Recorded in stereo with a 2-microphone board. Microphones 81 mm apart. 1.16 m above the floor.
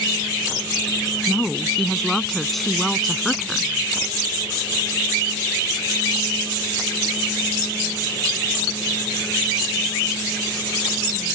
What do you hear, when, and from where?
1.3 s a woman speaking: centre (ahead or behind)